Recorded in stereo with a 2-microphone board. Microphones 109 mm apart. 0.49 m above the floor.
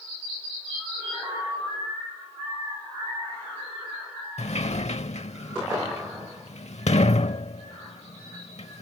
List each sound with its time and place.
4.4 s a sliding door: 75° left (ahead or behind)